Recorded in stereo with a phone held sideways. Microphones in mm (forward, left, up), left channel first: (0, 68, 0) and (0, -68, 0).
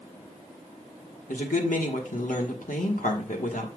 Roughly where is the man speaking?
Left.